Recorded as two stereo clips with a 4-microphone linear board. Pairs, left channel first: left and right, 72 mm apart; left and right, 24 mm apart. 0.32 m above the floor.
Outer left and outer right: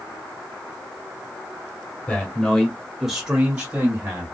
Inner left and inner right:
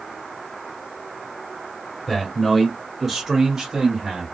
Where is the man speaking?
20° left (ahead or behind), 1.3 m; by 4.3 s 25° right (ahead or behind), 1.7 m.